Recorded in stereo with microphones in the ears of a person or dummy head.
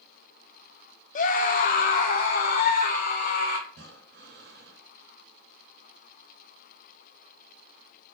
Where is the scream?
45° left (ahead or behind), 0.8 m; by 3.6 s 50° left (ahead or behind), 2.5 m.